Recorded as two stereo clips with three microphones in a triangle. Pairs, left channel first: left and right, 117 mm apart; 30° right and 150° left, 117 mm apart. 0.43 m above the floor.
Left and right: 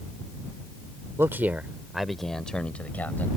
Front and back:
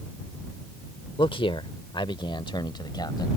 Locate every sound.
1.2 s a man speaking: 30° right; by 3.3 s 15° left